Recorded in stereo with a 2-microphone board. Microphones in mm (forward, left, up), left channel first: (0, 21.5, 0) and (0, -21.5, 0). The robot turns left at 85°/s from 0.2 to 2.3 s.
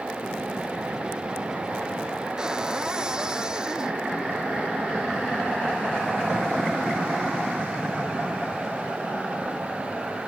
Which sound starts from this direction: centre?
A cupboard door, at 2.4 s.